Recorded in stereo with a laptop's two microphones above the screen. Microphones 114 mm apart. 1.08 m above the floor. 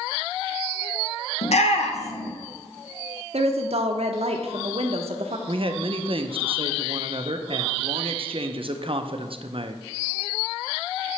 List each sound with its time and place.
1.4 s a shout: 70° left (ahead or behind), 0.7 m
3.3 s a woman speaking: 65° right (ahead or behind), 0.7 m
5.5 s a man speaking: 50° right (ahead or behind), 0.6 m